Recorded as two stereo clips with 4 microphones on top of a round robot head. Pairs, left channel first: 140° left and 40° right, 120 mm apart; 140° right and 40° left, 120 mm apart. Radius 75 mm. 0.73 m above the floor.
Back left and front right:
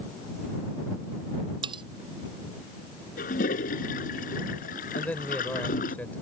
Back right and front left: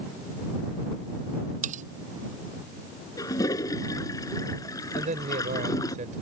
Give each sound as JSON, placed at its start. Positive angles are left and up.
{"t": 1.6, "sound": "cutlery clinking", "azimuth_deg": 15}
{"t": 3.2, "sound": "a toilet flushing", "azimuth_deg": 155}
{"t": 5.0, "sound": "a man speaking", "azimuth_deg": 65}